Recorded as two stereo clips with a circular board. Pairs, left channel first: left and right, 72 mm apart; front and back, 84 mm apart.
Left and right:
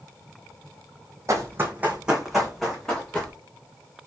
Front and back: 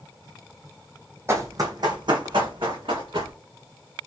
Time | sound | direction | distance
1.3 | running footsteps | 125° right | 0.8 m